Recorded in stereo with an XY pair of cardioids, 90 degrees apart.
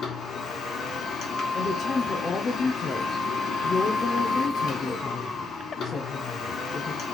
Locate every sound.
0.0 s a machine running: 70° left, 1.3 m
1.6 s a woman speaking: 40° left, 0.7 m